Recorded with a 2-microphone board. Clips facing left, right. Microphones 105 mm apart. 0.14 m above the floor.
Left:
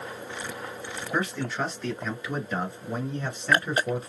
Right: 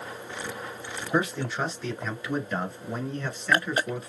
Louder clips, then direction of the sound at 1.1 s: Right 2 dB; 15° right (ahead or behind).